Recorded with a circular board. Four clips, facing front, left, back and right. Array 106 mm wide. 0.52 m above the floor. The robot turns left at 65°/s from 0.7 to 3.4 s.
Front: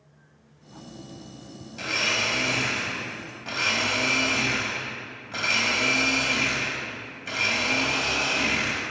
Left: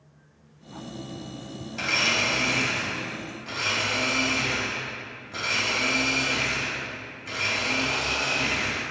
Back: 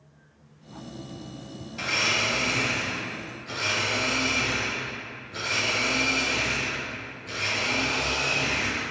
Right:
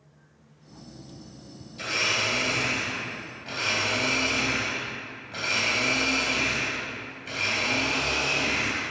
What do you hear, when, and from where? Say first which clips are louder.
1.7 s a blender: left 2 dB, even; 100° left, 3 m; by 8.8 s 10° right, 3 m